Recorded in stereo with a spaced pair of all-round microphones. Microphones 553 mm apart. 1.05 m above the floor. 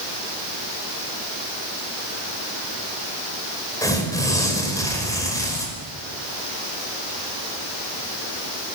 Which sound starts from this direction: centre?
Tearing paper, at 3.8 s.